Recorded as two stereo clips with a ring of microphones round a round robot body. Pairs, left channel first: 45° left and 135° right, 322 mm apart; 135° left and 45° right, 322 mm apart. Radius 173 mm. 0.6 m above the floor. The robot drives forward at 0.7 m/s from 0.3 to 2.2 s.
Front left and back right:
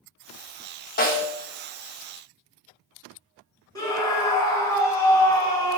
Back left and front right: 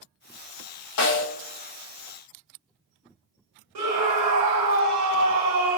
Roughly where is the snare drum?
Left.